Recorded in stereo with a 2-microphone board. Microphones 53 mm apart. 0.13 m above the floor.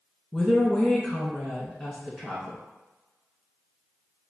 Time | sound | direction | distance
0.3 | a woman speaking | 5° right (ahead or behind) | 1.1 m